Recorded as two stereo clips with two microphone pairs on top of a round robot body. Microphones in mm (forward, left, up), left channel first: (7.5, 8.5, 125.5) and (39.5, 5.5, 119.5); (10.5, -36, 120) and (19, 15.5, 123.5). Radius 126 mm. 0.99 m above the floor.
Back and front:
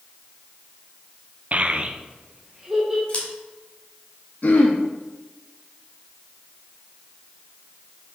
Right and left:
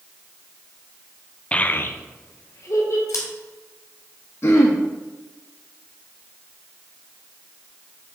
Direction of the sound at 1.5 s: 30° right.